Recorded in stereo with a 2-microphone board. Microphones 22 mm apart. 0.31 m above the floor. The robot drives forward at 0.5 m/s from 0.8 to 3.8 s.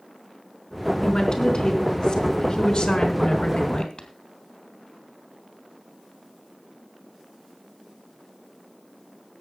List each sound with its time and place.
1.0 s a woman speaking: 50° left (ahead or behind), 3.5 m; by 4.1 s 65° left (ahead or behind), 3 m